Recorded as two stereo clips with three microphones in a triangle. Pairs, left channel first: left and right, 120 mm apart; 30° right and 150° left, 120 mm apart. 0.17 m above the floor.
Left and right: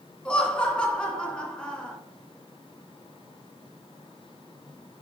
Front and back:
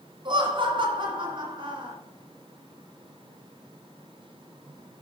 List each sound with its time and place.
0.2 s laughter: 170° left, 1.8 m